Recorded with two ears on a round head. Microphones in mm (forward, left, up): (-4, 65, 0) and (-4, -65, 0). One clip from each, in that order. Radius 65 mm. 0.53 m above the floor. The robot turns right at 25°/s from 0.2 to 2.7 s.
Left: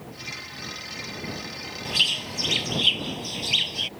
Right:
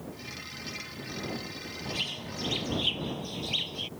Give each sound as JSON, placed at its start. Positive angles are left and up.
{"t": 1.9, "sound": "a bird", "side_deg": 70}